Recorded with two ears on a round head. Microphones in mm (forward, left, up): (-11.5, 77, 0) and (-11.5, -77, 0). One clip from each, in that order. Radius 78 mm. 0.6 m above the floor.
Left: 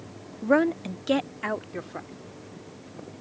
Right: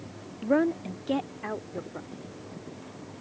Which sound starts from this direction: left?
A woman speaking, at 0.4 s.